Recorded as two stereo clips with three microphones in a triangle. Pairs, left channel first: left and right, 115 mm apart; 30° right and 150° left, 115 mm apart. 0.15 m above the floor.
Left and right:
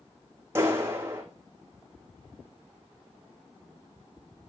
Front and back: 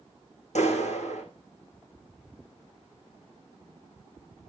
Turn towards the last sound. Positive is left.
turn(degrees=-20)